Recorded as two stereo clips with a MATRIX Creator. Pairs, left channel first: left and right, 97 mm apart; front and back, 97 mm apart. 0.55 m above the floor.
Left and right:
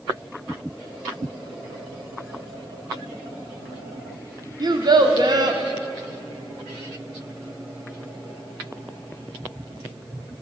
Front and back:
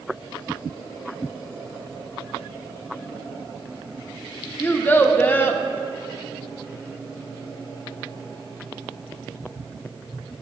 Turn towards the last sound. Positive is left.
turn(degrees=-65)